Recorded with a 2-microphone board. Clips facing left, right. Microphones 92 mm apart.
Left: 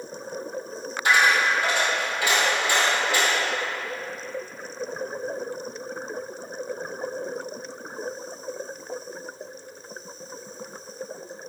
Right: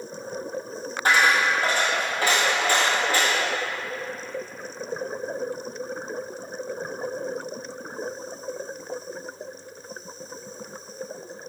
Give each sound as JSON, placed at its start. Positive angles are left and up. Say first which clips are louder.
{"t": 1.1, "sound": "a dropped coin", "louder": "even", "side_deg": -40, "distance_m": 1.4}